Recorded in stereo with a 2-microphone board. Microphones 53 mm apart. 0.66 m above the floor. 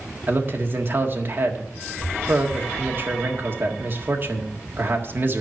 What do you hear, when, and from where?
0.3 s a man speaking: 40° right (ahead or behind), 1.6 m